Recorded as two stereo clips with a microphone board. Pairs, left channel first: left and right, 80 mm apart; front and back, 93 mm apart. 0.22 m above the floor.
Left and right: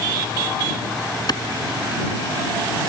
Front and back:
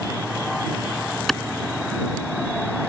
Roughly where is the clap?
Left.